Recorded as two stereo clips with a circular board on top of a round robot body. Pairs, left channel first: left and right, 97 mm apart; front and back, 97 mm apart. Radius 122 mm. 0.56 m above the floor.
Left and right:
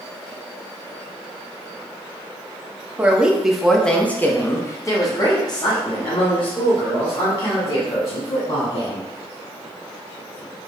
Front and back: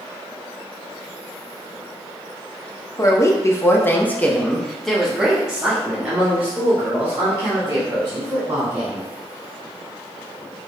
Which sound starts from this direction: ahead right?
A woman speaking, at 3.0 s.